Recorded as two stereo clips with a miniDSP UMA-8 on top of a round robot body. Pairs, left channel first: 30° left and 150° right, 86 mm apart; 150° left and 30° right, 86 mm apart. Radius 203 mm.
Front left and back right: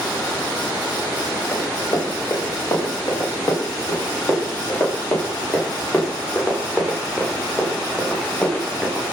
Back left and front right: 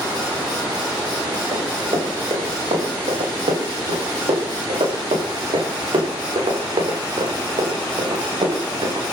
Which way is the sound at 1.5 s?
25° right.